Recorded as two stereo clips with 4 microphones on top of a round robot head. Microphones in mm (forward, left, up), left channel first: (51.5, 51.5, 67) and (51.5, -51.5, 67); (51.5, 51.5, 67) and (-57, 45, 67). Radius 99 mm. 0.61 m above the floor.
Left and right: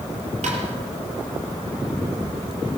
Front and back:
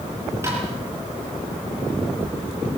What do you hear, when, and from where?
0.4 s tapping: 105° right, 6 m